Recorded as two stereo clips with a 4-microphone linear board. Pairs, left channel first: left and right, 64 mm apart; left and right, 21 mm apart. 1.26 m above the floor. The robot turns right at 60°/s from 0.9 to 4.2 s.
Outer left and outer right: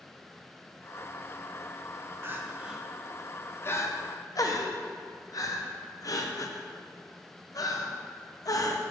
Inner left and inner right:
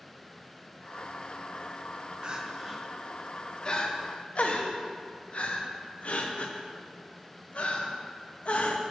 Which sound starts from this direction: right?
Crying, at 2.2 s.